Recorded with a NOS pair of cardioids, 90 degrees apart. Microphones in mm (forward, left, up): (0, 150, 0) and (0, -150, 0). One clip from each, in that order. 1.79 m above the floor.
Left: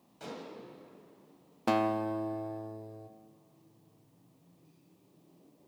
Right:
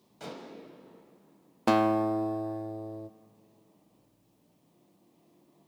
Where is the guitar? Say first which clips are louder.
Right 5 dB; 25° right, 0.7 m.